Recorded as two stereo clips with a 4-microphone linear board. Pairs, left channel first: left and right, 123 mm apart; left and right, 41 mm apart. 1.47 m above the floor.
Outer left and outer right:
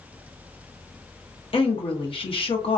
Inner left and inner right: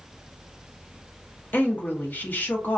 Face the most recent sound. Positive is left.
turn(degrees=50)  # may be behind; listen again after turning